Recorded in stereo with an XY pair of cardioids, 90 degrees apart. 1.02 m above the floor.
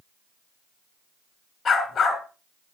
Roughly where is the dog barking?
Ahead left.